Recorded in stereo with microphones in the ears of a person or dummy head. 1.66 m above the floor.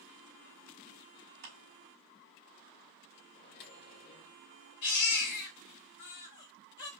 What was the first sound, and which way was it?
A clap, 60° right (ahead or behind).